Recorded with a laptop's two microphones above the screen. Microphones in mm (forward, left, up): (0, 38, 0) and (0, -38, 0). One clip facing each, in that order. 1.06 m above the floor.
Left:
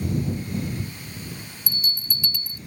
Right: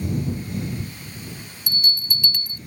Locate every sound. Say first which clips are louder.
1.7 s a bell: right 5 dB; 65° right (ahead or behind)